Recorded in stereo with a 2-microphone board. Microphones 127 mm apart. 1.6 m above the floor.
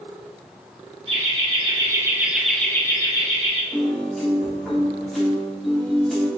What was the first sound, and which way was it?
Laughter, 50° right (ahead or behind).